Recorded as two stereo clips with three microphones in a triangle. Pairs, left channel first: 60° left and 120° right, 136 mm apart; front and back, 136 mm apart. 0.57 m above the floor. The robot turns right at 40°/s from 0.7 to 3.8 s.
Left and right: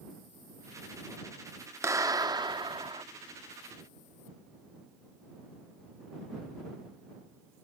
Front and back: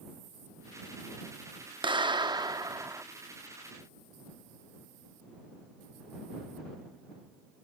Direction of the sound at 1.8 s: 175° right.